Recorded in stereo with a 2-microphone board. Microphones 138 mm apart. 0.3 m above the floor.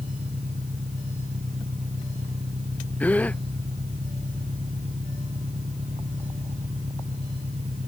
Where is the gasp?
10° left (ahead or behind).